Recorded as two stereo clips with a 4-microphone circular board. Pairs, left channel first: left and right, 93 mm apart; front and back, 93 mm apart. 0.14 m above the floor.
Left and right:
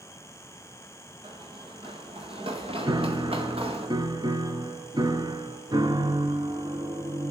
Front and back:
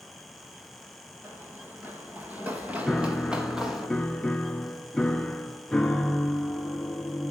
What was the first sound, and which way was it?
Running footsteps, 115° right.